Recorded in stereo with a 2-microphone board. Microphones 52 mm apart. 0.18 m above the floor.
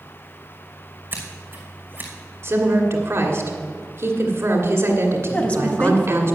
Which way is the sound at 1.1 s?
35° right (ahead or behind).